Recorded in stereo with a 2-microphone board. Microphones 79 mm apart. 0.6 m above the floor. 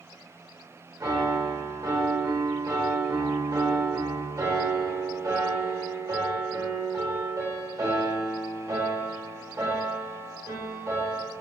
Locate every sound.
1.0 s a piano: 50° right (ahead or behind), 1.7 m